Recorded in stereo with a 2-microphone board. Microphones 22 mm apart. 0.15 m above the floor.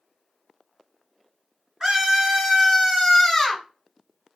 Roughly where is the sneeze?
No sneeze in this recording.